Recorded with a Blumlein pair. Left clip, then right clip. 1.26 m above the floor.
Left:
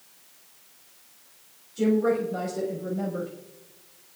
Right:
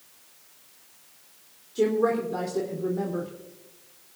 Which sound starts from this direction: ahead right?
A woman speaking, at 1.8 s.